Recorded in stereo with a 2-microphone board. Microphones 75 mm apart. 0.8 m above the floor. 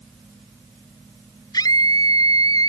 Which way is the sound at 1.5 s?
60° left (ahead or behind).